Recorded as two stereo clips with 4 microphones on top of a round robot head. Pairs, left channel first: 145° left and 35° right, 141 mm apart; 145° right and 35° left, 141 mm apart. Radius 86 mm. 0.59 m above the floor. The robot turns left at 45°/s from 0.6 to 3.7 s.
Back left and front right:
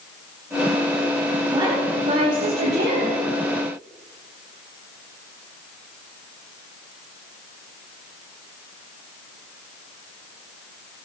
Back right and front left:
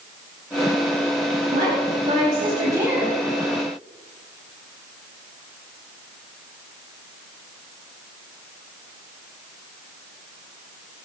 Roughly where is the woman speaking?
Ahead left.